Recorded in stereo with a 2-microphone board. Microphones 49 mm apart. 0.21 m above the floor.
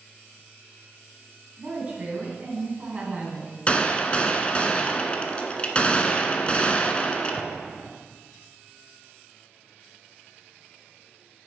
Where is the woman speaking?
35° right (ahead or behind), 2 m.